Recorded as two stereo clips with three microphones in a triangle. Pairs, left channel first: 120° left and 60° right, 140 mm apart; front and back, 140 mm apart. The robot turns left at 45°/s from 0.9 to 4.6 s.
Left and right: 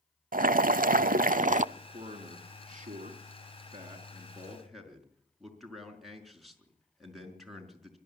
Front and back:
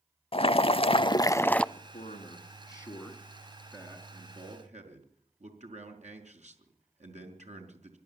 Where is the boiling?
50° right, 0.6 m; by 1.6 s 85° right, 0.6 m.